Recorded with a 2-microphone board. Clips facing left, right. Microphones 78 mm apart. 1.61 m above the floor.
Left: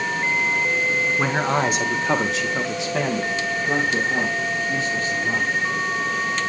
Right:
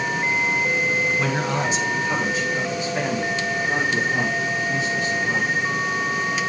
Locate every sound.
1.2 s a man speaking: 35° left (ahead or behind), 2.5 m; by 5.5 s 40° left (ahead or behind), 5.5 m